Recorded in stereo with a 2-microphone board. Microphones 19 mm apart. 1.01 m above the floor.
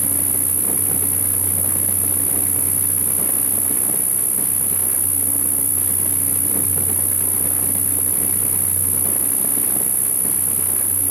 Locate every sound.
0.0 s an insect: 10° right (ahead or behind), 0.8 m